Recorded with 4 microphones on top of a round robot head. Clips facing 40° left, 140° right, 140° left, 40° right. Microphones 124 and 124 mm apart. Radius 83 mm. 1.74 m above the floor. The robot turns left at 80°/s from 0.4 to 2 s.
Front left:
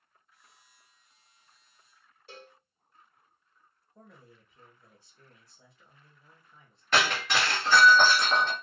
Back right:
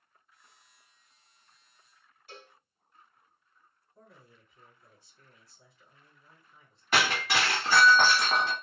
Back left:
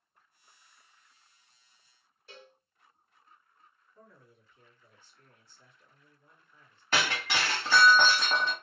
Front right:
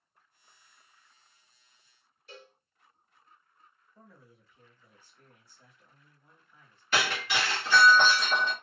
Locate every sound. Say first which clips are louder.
2.3 s a cowbell: front left 2 dB, front right 2 dB; 95° left, 1.8 m
4.0 s a man speaking: front left 2 dB, front right 1 dB; 40° left, 1.4 m
6.9 s breaking glass: front left 1 dB, front right 1 dB; 140° left, 1.2 m